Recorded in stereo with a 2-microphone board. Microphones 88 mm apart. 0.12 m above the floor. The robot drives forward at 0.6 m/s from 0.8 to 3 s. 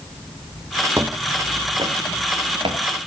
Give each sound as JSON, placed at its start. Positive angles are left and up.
{"t": 1.0, "sound": "footsteps", "side_deg": -30, "distance_m": 1.2}